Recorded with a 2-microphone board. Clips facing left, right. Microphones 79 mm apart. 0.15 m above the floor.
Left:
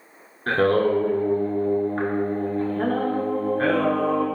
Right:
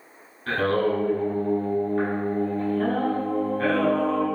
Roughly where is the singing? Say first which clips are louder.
Left 3 dB; left.